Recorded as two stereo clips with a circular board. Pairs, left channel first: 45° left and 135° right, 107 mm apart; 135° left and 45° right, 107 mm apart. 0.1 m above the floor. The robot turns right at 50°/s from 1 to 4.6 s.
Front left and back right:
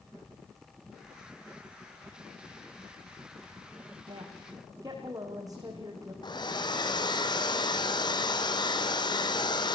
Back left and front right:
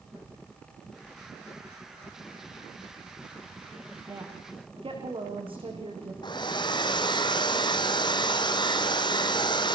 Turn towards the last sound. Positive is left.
turn(degrees=90)